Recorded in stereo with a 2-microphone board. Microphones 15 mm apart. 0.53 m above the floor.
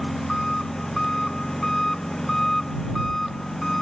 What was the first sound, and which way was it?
An engine running, 30° left (ahead or behind).